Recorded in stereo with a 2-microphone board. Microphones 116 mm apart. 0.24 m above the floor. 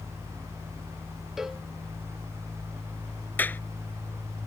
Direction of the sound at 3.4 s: 15° left (ahead or behind).